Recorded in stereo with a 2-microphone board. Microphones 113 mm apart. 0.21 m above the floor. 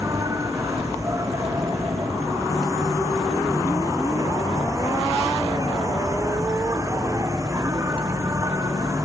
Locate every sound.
0.0 s an insect: 30° right (ahead or behind)